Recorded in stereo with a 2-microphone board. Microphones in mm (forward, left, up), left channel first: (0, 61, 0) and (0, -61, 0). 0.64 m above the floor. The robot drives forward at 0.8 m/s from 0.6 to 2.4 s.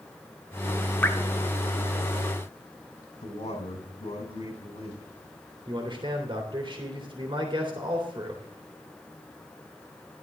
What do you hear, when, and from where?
1.0 s dripping: 15° left (ahead or behind), 1.0 m; by 1.2 s 20° left (ahead or behind), 0.9 m
3.2 s a man speaking: 55° left (ahead or behind), 6 m
5.7 s a man speaking: 40° right (ahead or behind), 3 m